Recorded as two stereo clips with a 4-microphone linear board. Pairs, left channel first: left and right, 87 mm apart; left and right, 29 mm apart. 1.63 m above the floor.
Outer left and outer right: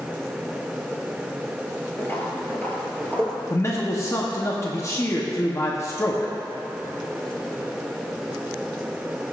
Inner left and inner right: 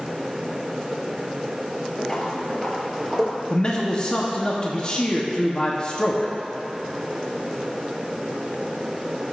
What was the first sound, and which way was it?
Footsteps, 25° left (ahead or behind).